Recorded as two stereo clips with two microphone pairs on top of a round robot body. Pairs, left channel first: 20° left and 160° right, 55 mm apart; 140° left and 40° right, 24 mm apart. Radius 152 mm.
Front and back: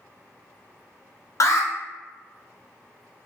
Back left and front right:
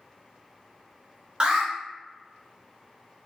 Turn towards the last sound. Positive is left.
turn(degrees=5)